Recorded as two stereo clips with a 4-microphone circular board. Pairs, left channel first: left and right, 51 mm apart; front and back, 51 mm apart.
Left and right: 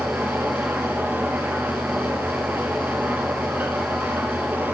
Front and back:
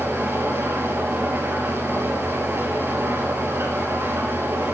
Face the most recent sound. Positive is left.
turn(degrees=-140)